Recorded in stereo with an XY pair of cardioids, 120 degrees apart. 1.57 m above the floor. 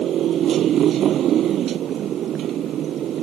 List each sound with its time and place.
0.0 s a motorcycle: 55° right